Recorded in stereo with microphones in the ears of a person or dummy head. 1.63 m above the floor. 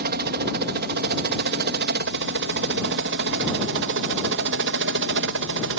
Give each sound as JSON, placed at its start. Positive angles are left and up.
{"t": 0.0, "sound": "a helicopter", "side_deg": -50}